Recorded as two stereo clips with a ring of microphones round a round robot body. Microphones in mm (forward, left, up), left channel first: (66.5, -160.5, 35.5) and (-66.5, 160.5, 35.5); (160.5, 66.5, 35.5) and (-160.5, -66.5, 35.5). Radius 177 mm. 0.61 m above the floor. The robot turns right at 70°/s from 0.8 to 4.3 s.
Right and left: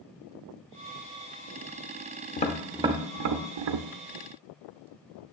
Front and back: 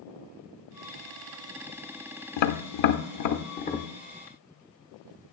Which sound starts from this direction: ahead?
Tapping, at 2.4 s.